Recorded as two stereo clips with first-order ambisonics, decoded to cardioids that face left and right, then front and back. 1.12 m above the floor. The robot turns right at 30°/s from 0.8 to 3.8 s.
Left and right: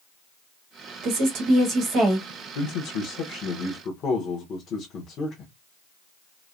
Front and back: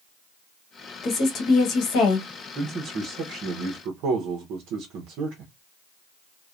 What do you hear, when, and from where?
1.0 s a woman speaking: 60° right, 1.0 m; by 2.3 s 20° right, 1.0 m
2.5 s a man speaking: 110° left, 0.7 m; by 5.5 s 145° left, 0.7 m